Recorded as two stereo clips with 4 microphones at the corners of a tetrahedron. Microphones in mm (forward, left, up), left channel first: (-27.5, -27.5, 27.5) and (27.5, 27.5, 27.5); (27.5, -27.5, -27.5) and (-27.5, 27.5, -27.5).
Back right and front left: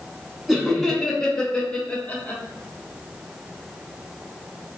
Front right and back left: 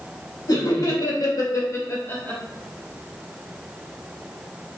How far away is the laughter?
About 2 m.